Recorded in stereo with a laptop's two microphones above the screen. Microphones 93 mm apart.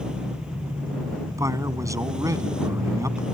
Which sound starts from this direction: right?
A man speaking, at 1.4 s.